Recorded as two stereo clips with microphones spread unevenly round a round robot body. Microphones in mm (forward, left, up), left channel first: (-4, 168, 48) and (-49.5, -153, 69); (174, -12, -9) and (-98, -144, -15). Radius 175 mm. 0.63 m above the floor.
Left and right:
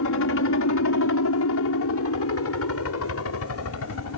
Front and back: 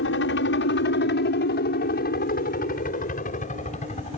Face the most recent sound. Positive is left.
turn(degrees=90)